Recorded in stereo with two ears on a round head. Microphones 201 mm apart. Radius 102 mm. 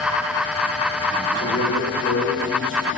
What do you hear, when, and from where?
1.4 s a man speaking: 60° left (ahead or behind), 1.4 m